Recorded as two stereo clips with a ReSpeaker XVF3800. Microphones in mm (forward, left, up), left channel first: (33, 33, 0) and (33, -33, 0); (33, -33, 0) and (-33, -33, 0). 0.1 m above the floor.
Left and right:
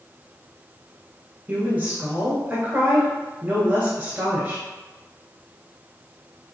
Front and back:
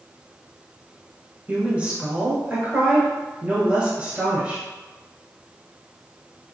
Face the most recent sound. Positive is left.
turn(degrees=-130)